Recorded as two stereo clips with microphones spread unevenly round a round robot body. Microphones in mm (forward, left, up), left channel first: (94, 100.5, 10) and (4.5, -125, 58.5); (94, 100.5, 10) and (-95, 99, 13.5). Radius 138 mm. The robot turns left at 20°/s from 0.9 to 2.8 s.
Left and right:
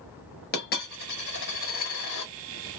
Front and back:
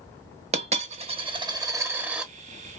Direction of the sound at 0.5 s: 120° left.